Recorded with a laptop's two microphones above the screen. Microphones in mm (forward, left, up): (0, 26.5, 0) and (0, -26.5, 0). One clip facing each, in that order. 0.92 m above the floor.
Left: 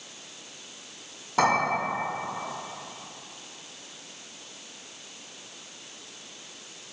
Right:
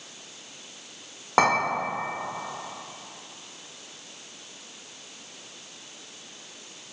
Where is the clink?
85° right, 1.0 m.